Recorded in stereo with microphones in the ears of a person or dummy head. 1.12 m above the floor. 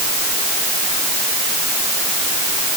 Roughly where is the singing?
I don't hear singing.